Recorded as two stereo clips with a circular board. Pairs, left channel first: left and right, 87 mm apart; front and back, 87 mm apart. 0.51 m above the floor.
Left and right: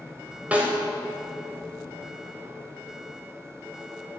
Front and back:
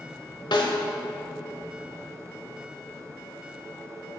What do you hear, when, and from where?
0.5 s a snare drum: 20° right, 1.4 m